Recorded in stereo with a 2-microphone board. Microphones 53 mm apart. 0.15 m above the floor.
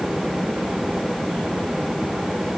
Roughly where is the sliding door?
I don't hear a sliding door.